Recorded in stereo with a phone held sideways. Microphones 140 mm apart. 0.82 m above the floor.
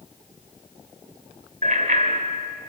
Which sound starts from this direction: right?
A bicycle bell, at 1.6 s.